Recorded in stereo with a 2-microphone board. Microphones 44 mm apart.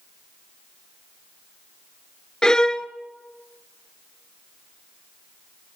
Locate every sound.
2.4 s a violin: 20° left (ahead or behind), 0.5 m